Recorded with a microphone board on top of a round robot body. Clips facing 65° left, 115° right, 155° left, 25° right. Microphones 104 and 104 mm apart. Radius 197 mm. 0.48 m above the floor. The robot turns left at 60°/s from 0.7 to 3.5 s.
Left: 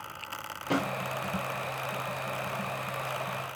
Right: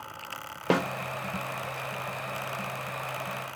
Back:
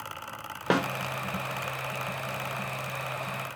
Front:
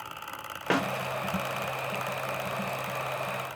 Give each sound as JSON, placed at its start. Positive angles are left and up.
{"t": 0.7, "sound": "a snare drum", "azimuth_deg": -130, "distance_m": 0.6}